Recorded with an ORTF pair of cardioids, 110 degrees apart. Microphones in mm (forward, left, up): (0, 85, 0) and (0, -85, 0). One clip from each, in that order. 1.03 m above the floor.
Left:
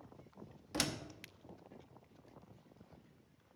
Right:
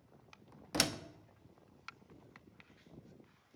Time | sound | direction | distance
0.7 | a door slam | 25° right | 0.7 m